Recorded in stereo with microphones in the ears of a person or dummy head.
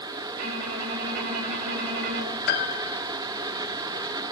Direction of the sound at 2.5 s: 55° left (ahead or behind).